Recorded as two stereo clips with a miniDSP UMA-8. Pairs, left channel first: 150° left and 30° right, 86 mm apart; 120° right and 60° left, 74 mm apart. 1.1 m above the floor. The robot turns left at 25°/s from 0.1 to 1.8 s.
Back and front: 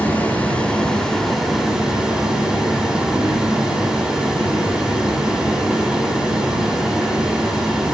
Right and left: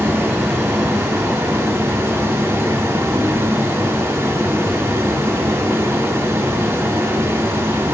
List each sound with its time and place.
0.0 s running water: 90° left, 1.1 m; by 7.9 s 50° left, 1.1 m